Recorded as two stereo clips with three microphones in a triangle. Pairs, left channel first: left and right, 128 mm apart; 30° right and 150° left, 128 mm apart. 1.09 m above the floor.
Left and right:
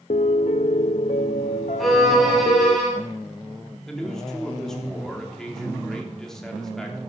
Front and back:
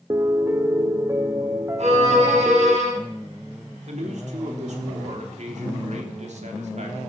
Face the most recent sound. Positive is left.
turn(degrees=175)